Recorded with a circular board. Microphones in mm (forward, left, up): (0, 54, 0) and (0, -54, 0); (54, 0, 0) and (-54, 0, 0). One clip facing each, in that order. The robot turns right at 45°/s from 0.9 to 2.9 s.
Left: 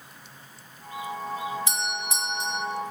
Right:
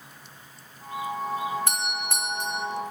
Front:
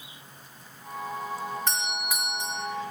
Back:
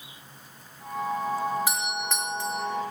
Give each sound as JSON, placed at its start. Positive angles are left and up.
{"t": 1.7, "sound": "a doorbell", "azimuth_deg": -100, "distance_m": 4.0}